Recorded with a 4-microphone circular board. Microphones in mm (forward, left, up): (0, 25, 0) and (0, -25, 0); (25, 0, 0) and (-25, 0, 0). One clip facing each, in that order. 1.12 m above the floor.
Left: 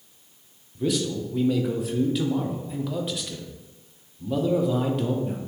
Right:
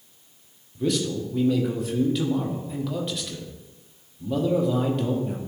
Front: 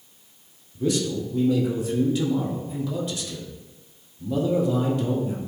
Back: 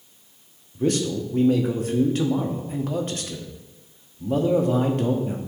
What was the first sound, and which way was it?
A man speaking, straight behind.